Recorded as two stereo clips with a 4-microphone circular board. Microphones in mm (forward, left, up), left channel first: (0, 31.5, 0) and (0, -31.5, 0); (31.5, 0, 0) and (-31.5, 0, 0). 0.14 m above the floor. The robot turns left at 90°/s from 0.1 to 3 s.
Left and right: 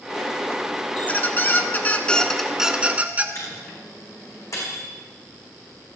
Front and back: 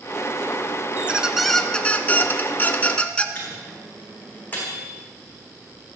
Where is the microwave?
60° left, 7 m.